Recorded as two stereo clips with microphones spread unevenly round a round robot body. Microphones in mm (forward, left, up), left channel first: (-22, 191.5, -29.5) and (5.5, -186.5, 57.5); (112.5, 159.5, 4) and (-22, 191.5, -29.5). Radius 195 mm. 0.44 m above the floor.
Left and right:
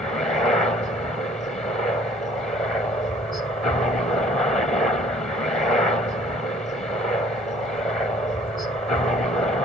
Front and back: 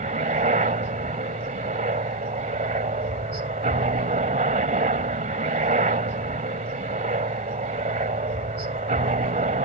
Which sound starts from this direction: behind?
A helicopter, at 0.0 s.